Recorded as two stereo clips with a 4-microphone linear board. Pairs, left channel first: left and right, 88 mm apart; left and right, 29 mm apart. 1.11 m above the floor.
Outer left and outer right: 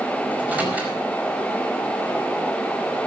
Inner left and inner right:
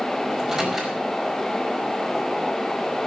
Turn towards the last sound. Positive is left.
turn(degrees=-20)  # may be behind; listen again after turning